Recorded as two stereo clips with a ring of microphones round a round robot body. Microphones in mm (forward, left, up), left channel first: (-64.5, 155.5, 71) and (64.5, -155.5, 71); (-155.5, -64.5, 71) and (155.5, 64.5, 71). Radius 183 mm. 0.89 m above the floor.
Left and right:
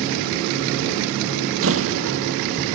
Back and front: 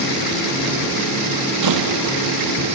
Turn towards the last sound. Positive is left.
turn(degrees=-15)